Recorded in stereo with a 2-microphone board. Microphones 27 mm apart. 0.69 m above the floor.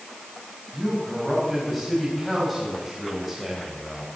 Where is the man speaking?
Centre (ahead or behind), 6 m; by 4.1 s 5° right (ahead or behind), 4 m.